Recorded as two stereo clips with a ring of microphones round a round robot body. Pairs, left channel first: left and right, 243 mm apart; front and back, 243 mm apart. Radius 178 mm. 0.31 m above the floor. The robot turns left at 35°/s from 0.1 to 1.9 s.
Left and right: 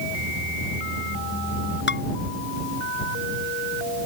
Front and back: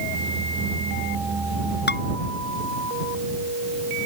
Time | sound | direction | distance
1.9 | dishes clattering | 45° left | ?